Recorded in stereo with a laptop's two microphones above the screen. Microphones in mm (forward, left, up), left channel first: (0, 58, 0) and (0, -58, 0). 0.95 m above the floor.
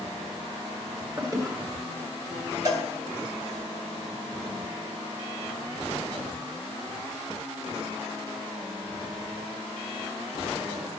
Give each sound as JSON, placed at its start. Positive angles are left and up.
{"t": 1.2, "sound": "a toilet flushing", "side_deg": -30, "distance_m": 1.5}
{"t": 2.6, "sound": "a cowbell", "side_deg": -30, "distance_m": 1.5}